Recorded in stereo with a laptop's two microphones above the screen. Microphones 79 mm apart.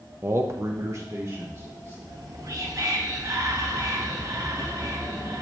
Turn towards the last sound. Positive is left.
turn(degrees=-50)  # may be behind; listen again after turning